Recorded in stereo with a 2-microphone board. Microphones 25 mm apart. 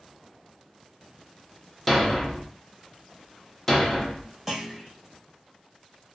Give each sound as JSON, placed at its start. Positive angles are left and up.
{"t": 1.9, "sound": "a thud", "side_deg": 5, "distance_m": 0.6}
{"t": 4.5, "sound": "a clunk", "side_deg": -10, "distance_m": 1.1}